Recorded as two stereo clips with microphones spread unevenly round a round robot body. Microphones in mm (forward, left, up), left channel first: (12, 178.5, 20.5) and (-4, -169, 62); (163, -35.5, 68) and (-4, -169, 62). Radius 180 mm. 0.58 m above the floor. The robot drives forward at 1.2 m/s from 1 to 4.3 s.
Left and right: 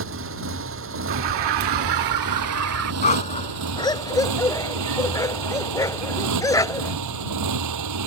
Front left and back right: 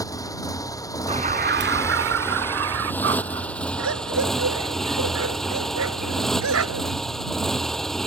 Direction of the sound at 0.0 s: 35° right.